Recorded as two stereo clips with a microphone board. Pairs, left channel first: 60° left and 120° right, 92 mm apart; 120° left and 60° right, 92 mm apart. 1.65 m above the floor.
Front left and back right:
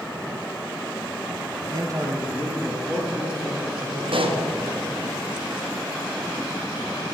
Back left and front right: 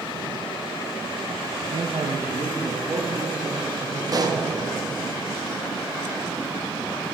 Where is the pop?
105° right, 1.3 m.